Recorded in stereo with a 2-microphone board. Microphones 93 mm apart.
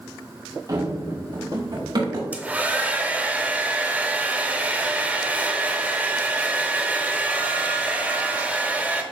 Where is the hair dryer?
15° right (ahead or behind), 0.8 m.